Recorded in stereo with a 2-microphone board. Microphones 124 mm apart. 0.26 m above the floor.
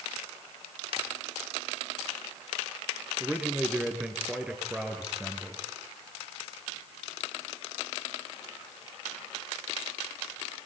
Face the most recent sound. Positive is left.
turn(degrees=-10)  # may be behind; listen again after turning